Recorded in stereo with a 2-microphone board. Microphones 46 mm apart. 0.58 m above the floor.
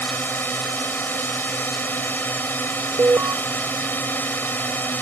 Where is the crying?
I don't hear crying.